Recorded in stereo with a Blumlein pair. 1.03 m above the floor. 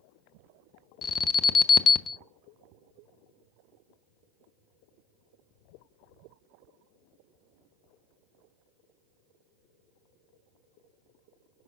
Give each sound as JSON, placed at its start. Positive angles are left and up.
{"t": 1.0, "sound": "an alarm", "azimuth_deg": 30, "distance_m": 0.5}